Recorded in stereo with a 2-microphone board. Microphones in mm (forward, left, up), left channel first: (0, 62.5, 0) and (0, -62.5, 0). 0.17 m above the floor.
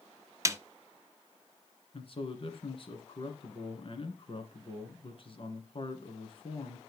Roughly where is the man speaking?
Left.